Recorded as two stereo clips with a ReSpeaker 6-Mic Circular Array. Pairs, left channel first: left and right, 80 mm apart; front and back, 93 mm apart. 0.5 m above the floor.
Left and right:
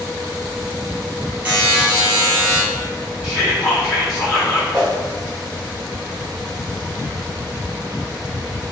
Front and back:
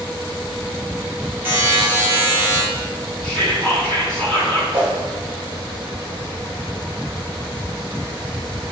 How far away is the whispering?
About 2.0 m.